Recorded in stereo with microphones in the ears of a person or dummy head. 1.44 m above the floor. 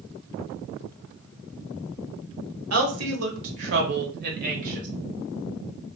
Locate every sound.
2.7 s a woman speaking: 75° right (ahead or behind), 1.3 m; by 4.9 s 40° right (ahead or behind), 1.4 m